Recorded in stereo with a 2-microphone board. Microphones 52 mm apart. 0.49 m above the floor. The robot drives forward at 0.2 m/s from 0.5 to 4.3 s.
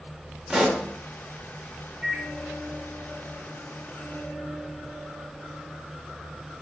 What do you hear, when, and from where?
0.5 s a pop: 10° right (ahead or behind), 0.7 m; by 0.8 s 15° right (ahead or behind), 0.7 m
2.0 s a microwave: 15° right (ahead or behind), 0.7 m